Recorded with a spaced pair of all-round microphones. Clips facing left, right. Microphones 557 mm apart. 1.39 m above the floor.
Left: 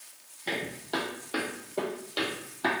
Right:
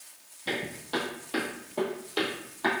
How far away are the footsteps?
About 1.8 m.